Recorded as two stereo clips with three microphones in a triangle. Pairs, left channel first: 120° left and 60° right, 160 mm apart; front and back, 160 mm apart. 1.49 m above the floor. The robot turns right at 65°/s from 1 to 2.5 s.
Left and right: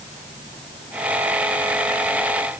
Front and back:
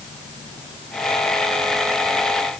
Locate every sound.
Only background noise.